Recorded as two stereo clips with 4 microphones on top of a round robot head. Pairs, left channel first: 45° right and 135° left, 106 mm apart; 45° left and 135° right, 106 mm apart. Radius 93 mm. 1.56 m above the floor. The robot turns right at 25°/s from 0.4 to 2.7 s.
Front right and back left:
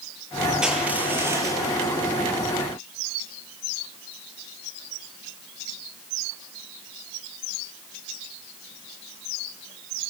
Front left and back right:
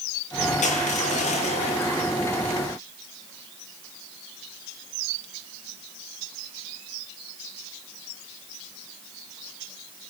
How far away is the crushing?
About 8.5 m.